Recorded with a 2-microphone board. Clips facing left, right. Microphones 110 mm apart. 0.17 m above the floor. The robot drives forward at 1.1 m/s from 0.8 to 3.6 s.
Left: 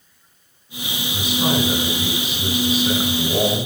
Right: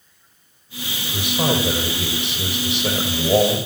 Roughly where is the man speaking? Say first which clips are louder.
Even; right.